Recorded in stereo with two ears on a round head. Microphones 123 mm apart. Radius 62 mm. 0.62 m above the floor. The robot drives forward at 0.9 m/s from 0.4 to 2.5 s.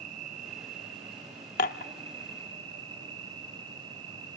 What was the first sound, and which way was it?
An insect, 60° right (ahead or behind).